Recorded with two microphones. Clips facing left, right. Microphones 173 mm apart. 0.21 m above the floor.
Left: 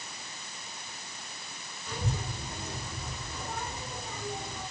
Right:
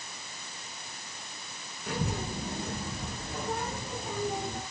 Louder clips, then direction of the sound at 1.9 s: Right 3 dB; 65° right (ahead or behind).